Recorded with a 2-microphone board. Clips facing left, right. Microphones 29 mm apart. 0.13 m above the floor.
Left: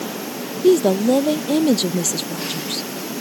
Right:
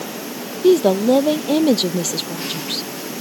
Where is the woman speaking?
15° right (ahead or behind).